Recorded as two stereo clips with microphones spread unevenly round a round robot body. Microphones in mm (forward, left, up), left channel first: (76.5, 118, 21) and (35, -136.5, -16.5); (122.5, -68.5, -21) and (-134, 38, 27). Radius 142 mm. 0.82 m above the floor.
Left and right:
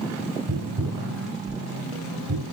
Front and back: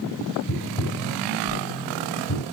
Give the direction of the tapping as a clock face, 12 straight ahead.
3 o'clock.